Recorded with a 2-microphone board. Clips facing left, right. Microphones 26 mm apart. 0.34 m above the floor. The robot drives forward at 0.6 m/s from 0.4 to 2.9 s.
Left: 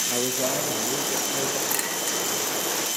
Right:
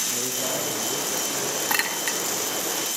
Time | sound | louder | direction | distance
0.1 | a man speaking | left 2 dB | 75° left (ahead or behind) | 9.5 m
1.7 | a clink | right 2 dB | 40° right (ahead or behind) | 3 m